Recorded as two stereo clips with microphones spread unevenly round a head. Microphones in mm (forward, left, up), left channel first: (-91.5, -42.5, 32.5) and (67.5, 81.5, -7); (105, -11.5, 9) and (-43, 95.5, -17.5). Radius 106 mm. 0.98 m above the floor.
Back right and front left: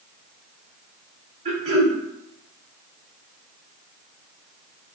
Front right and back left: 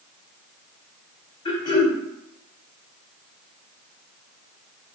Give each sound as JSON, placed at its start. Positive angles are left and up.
{"t": 1.4, "sound": "throat clearing", "azimuth_deg": -20, "distance_m": 0.7}